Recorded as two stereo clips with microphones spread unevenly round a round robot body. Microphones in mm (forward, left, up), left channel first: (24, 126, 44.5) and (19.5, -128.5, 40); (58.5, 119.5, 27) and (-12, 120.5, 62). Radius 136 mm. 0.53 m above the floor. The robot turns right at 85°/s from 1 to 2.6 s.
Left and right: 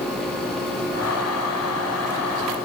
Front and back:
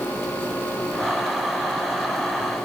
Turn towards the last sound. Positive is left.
No sound to turn to.